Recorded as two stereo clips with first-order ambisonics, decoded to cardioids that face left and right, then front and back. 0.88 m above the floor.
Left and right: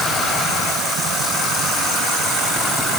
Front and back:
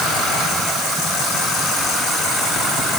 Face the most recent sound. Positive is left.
No sound to turn to.